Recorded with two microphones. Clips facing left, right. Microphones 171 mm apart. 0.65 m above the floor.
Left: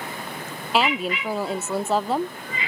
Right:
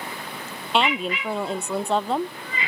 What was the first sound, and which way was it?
A woman speaking, 5° left (ahead or behind).